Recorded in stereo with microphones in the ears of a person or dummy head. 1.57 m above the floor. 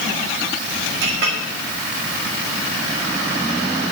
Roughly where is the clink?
Right.